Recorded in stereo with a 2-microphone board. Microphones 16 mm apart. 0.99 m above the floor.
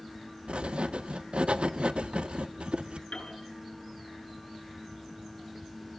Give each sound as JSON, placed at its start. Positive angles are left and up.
{"t": 0.5, "sound": "writing", "side_deg": -90, "distance_m": 0.8}
{"t": 3.1, "sound": "a piano", "side_deg": 75, "distance_m": 8.0}